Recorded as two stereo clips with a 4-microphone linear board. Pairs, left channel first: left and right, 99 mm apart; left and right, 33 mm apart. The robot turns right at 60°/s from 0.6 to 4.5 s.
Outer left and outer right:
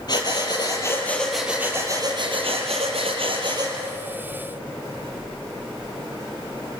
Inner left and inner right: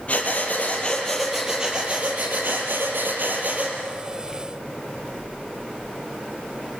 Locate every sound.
0.1 s breathing: 135° left, 5 m; by 3.8 s 35° right, 5 m